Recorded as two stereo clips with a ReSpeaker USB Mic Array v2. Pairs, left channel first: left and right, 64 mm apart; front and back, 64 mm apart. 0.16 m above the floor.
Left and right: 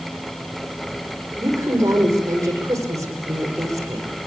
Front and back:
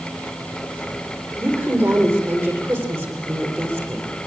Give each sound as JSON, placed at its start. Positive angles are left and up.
{"t": 1.4, "sound": "a woman speaking", "azimuth_deg": -130, "distance_m": 9.0}